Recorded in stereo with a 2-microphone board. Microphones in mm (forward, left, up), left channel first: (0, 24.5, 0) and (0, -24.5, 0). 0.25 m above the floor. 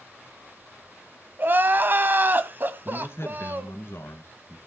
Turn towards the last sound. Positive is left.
turn(degrees=60)  # may be behind; listen again after turning